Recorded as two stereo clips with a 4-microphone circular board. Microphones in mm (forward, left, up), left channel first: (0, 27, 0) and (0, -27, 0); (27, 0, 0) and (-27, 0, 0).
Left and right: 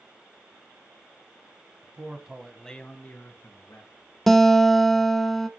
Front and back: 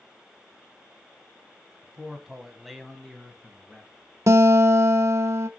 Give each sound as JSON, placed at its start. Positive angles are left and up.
{"t": 1.8, "sound": "a man speaking", "azimuth_deg": -110, "distance_m": 1.2}
{"t": 4.3, "sound": "a guitar", "azimuth_deg": 175, "distance_m": 0.5}